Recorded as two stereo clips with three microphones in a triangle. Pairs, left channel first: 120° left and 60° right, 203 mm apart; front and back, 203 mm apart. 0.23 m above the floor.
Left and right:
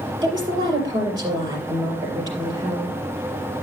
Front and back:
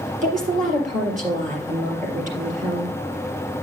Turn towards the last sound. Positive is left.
turn(degrees=-130)